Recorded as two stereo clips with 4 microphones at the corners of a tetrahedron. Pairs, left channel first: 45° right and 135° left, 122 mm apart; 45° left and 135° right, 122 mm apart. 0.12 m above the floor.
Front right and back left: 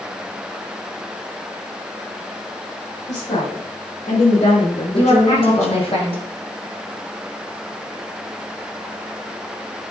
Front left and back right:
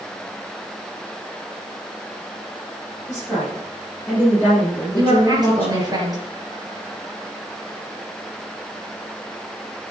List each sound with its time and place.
3.1 s a woman speaking: 40° right, 5.5 m; by 6.0 s 35° right, 7.5 m
5.0 s a woman speaking: 80° right, 4.5 m